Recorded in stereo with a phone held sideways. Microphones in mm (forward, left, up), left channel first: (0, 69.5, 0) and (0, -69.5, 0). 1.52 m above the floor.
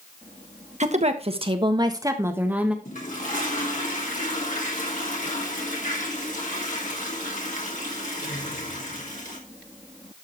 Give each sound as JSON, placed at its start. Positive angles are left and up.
{"t": 0.8, "sound": "a woman speaking", "side_deg": -55, "distance_m": 1.3}
{"t": 2.9, "sound": "a toilet flushing", "side_deg": 65, "distance_m": 3.0}